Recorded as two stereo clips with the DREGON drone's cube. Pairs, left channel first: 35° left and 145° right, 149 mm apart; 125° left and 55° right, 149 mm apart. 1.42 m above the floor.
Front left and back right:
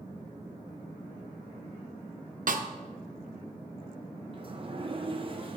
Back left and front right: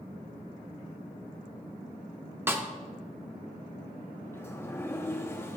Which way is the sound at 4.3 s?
170° right.